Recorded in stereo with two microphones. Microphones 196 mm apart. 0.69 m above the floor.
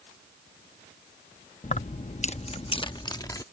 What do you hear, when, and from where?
1.6 s keys jangling: 35° left (ahead or behind); by 3.4 s 20° left (ahead or behind)